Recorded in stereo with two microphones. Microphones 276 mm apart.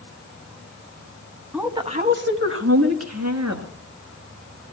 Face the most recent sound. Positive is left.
turn(degrees=-65)  # may be behind; listen again after turning